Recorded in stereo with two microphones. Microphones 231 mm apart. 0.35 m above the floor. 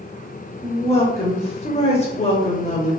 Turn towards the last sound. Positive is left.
turn(degrees=30)  # may be behind; listen again after turning